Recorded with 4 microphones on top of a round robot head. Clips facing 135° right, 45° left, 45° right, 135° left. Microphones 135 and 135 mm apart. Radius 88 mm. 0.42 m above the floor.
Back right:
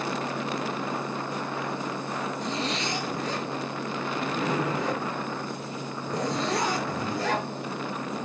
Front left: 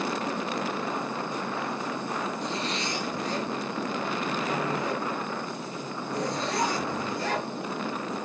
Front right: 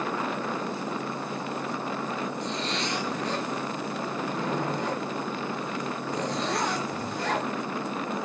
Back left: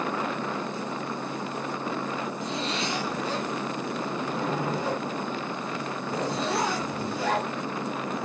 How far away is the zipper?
About 3.5 m.